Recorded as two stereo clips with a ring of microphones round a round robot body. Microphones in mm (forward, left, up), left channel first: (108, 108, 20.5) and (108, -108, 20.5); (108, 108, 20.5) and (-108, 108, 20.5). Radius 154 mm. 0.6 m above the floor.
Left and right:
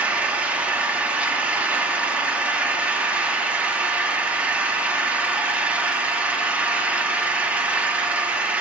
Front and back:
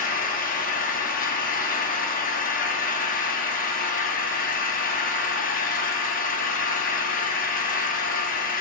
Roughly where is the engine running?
Ahead.